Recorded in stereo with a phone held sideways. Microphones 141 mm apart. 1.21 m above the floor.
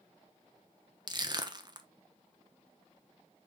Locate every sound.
1.1 s crushing: 35° right (ahead or behind), 0.9 m